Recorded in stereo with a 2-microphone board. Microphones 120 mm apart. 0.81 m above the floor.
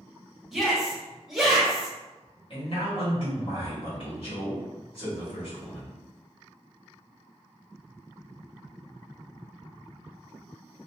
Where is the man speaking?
50° left (ahead or behind), 1.6 m.